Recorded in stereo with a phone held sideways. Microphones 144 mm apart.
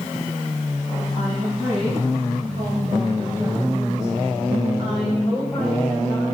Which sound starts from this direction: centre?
A woman speaking, at 1.1 s.